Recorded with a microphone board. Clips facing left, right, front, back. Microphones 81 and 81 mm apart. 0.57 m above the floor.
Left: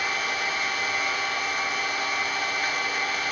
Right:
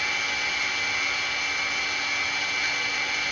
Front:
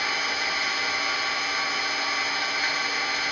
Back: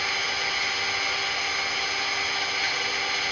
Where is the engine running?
50° left, 0.9 m.